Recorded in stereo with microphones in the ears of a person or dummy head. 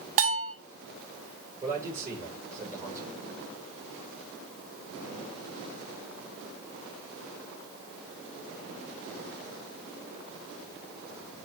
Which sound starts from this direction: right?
A bell, at 0.2 s.